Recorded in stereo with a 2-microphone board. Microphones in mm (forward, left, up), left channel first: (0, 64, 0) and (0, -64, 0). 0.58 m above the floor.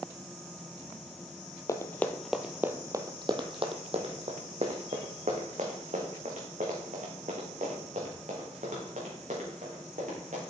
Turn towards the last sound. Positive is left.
turn(degrees=-80)